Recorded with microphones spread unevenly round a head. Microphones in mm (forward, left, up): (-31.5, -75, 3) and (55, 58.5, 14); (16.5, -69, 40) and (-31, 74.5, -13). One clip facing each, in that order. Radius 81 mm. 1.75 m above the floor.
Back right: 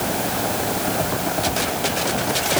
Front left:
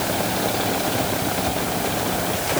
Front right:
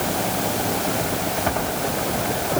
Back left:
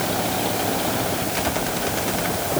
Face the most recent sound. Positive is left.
No sound to turn to.